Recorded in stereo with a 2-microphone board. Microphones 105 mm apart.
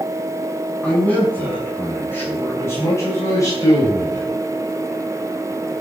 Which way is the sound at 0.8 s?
15° left (ahead or behind).